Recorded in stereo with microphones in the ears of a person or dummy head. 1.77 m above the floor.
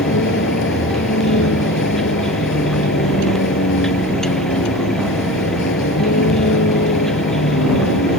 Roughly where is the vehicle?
Left.